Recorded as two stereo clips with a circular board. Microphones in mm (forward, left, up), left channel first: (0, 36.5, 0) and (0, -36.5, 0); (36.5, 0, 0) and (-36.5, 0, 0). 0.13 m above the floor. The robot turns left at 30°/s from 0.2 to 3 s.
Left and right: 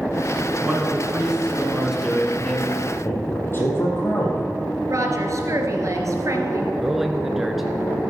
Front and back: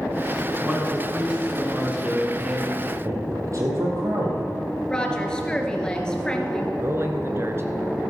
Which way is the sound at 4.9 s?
75° right.